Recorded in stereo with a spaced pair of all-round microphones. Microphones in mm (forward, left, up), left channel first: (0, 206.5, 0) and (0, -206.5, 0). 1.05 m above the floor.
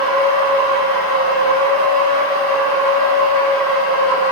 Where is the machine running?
30° left (ahead or behind), 1.0 m.